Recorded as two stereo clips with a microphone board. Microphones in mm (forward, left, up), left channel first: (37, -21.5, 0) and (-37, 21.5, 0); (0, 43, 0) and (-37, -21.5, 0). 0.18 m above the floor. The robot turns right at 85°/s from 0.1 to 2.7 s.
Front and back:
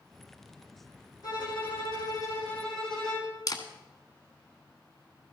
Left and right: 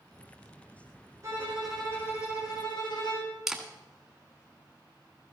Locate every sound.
1.2 s a violin: 70° right, 7 m; by 3.4 s 55° left, 7 m
3.5 s a camera shutter: 35° right, 1.8 m